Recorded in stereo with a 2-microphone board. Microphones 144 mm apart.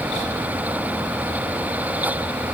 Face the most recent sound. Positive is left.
No sound to turn to.